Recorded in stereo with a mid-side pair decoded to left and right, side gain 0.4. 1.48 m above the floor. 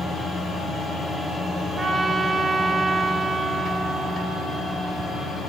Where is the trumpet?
45° right, 4 m.